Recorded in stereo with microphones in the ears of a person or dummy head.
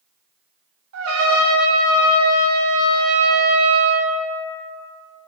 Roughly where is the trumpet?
Right.